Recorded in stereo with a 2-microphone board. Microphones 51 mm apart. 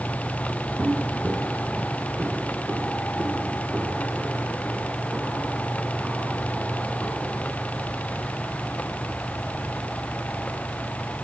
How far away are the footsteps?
About 1.0 m.